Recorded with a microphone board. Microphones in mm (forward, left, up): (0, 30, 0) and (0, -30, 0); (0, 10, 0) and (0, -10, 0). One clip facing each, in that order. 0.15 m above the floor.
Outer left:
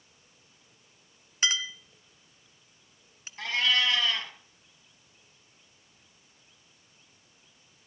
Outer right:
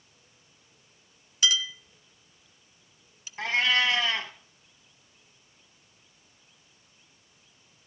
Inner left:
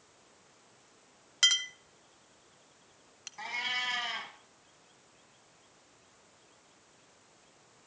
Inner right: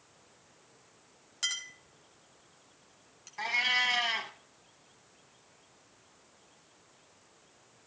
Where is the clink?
35° left (ahead or behind), 0.7 m.